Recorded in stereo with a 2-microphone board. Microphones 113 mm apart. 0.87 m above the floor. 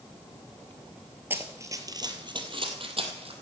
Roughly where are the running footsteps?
Centre.